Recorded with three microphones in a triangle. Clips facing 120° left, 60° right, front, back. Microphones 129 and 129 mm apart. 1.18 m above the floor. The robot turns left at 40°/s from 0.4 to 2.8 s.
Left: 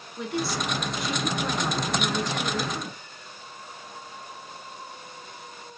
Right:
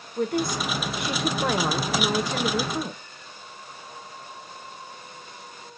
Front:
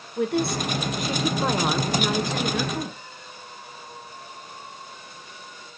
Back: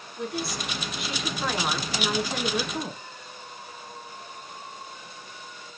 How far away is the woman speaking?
About 1.2 m.